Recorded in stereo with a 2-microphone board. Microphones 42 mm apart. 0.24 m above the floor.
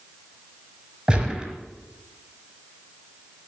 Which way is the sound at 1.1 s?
20° right (ahead or behind).